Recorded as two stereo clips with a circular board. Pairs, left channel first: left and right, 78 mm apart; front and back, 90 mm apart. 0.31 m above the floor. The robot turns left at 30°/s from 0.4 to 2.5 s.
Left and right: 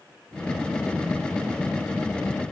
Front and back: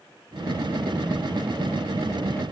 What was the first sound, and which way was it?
Only background noise.